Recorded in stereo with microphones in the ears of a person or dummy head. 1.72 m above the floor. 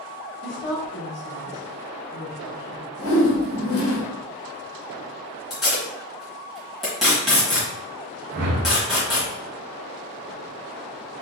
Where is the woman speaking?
65° left (ahead or behind), 1.4 m.